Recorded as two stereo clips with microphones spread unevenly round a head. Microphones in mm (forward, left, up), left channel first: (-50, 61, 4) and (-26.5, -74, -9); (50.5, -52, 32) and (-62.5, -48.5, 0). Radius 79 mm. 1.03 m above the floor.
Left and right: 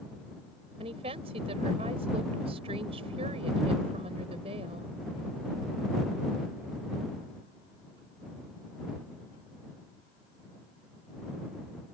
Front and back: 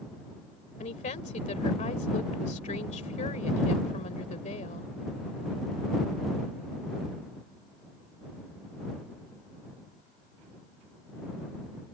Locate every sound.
0.8 s a woman speaking: 20° right